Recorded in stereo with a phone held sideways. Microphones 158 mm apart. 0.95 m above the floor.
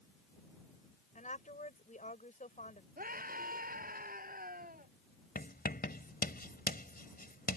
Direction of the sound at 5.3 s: 75° left (ahead or behind).